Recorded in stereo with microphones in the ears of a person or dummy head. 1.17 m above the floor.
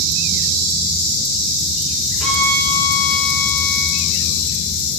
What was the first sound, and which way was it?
A violin, centre (ahead or behind).